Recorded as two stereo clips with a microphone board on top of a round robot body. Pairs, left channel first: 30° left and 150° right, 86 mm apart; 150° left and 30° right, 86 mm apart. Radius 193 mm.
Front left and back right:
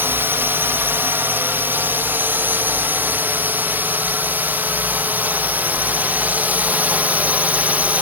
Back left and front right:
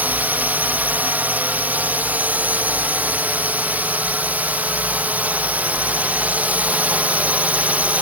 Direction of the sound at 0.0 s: 95° right.